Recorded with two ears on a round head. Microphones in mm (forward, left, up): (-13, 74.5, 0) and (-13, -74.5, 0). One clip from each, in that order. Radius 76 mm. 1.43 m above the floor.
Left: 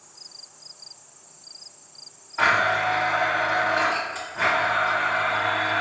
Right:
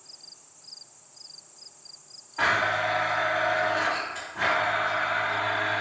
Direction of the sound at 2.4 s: 15° left (ahead or behind).